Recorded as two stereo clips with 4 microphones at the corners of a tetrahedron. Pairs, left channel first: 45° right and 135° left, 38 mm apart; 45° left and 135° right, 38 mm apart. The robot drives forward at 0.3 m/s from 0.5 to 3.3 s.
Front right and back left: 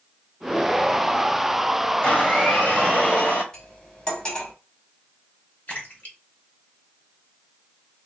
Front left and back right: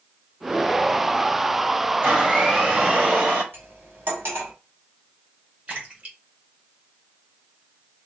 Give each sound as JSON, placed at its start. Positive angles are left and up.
{"t": 2.0, "sound": "a blender", "azimuth_deg": -80, "distance_m": 3.5}
{"t": 3.5, "sound": "cutlery clinking", "azimuth_deg": -110, "distance_m": 2.5}
{"t": 5.7, "sound": "a splash", "azimuth_deg": -85, "distance_m": 2.5}